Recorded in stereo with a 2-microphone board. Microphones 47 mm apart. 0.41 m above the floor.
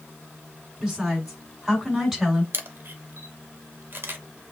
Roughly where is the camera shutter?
Right.